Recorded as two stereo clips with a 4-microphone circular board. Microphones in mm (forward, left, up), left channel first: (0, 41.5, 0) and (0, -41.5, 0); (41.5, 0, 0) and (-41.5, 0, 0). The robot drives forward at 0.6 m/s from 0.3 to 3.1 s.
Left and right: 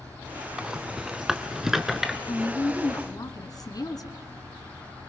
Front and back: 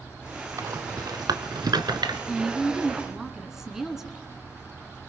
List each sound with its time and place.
0.6 s a rattle: 165° right, 0.9 m; by 2.2 s 175° right, 1.7 m
2.3 s a woman speaking: 85° left, 2.5 m; by 4.2 s 100° left, 2.5 m